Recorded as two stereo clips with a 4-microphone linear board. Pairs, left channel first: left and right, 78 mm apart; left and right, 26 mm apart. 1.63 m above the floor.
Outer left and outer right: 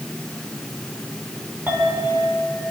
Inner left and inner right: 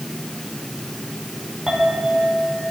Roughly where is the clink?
Right.